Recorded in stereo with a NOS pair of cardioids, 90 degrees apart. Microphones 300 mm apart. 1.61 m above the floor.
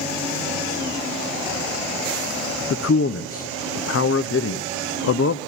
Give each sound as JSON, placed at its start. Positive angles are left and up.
{"t": 2.7, "sound": "a man speaking", "azimuth_deg": 50, "distance_m": 0.9}